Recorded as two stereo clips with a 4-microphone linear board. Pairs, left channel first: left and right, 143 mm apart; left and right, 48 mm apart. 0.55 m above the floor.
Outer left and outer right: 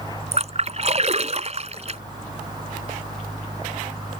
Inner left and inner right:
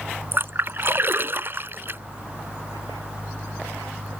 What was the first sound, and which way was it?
A splash, 50° right (ahead or behind).